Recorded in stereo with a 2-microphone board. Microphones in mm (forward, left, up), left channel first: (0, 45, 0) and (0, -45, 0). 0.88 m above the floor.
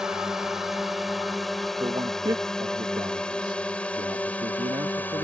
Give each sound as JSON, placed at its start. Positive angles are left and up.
{"t": 0.0, "sound": "a drone", "side_deg": -5}
{"t": 1.8, "sound": "a man speaking", "side_deg": -55}